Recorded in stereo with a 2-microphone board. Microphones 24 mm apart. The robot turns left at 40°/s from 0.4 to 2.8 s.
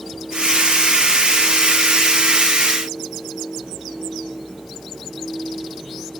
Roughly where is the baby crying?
No baby crying in this recording.